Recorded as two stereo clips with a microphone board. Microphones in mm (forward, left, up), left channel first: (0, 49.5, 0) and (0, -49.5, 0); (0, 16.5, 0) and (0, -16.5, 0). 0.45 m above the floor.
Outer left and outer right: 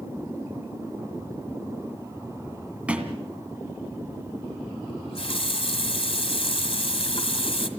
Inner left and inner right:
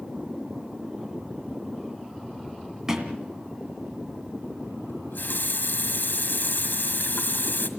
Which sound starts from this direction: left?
A running tap, at 4.9 s.